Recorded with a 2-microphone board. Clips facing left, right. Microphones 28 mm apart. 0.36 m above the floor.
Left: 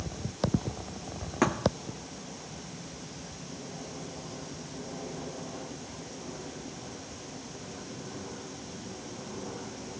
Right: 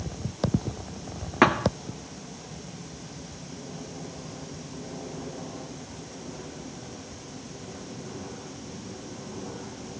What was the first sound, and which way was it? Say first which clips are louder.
A thud: right 6 dB; 40° right (ahead or behind).